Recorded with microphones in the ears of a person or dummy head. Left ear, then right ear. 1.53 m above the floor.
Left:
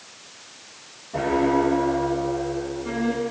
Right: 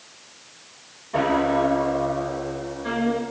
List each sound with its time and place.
1.1 s a piano: 65° right (ahead or behind), 5 m